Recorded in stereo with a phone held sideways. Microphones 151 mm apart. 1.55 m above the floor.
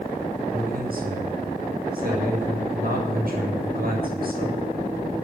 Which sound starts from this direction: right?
A man speaking, at 0.5 s.